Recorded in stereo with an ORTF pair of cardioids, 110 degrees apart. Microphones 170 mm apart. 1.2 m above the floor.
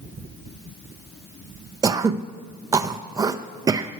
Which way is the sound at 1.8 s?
20° right.